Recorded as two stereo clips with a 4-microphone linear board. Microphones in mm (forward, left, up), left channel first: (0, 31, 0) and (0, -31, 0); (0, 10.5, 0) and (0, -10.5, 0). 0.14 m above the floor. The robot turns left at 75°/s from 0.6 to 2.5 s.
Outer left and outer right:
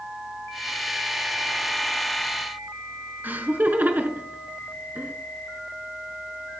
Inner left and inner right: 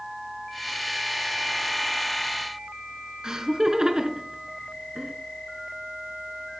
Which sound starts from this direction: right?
Laughter, at 3.2 s.